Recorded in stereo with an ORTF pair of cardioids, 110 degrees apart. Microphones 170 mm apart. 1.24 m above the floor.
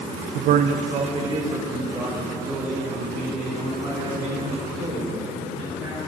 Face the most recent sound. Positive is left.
turn(degrees=-15)